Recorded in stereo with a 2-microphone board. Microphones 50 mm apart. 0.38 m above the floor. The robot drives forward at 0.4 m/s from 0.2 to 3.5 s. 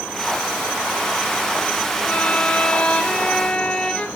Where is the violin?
30° left (ahead or behind), 0.8 m; by 4.1 s 20° left (ahead or behind), 1.3 m.